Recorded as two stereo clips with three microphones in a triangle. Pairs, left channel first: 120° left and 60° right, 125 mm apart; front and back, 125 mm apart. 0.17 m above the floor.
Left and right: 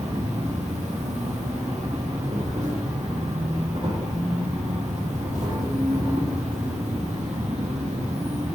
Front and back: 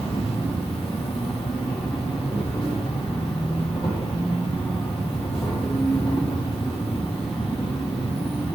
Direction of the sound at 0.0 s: 40° right.